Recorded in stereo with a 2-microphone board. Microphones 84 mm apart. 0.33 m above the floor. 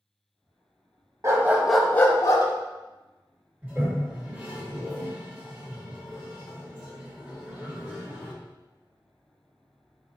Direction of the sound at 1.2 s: 35° right (ahead or behind).